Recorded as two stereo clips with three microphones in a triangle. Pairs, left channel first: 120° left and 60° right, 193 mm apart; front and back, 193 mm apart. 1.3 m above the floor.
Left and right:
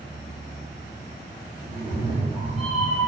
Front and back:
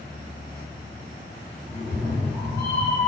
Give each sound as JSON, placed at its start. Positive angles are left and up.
{"t": 1.7, "sound": "a cat meowing", "azimuth_deg": -115, "distance_m": 2.0}